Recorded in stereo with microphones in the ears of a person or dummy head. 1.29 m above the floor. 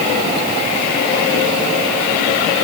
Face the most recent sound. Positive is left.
No sound to turn to.